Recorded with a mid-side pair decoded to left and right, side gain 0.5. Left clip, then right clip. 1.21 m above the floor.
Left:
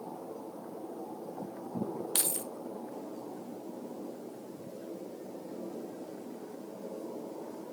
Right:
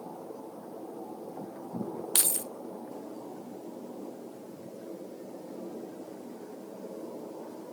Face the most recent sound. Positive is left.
turn(degrees=-30)